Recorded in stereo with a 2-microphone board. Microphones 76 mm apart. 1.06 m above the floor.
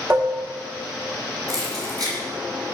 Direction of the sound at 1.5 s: 55° right (ahead or behind).